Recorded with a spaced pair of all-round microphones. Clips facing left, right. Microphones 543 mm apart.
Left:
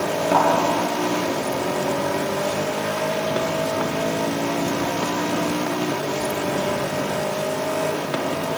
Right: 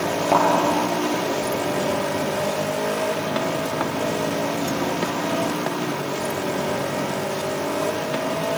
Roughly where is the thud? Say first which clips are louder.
Even; left.